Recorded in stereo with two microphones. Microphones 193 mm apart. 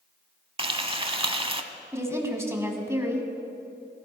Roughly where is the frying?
Right.